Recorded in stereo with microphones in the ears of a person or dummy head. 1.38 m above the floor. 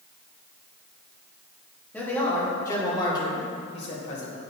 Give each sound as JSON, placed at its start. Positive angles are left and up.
{"t": 1.9, "sound": "a man speaking", "side_deg": 10, "distance_m": 3.0}